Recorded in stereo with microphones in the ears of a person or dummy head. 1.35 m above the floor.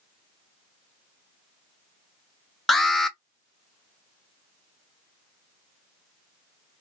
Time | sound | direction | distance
2.7 | an alarm | 5° left (ahead or behind) | 0.6 m